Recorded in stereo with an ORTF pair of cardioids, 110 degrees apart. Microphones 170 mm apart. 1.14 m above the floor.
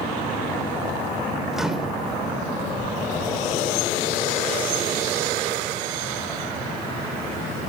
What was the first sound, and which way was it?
A microwave, 5° right.